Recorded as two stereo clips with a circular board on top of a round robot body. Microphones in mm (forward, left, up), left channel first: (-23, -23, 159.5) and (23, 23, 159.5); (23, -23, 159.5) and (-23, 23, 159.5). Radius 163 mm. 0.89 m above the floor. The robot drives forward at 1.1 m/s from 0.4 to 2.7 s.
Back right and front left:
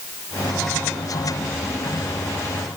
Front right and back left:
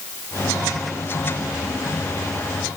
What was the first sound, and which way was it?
Only background noise.